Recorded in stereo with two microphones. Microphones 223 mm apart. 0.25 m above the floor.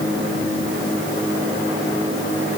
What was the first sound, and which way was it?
Only background noise.